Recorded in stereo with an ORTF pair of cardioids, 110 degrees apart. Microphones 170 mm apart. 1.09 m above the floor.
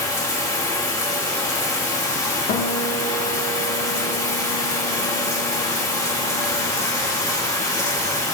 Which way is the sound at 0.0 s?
20° left.